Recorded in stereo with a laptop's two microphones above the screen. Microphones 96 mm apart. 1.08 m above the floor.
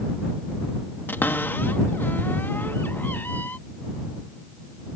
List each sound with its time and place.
1.1 s a cupboard door: 20° left (ahead or behind)